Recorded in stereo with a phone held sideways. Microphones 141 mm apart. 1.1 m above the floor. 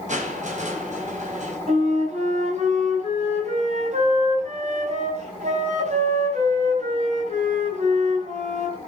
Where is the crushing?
60° right (ahead or behind), 4.5 m.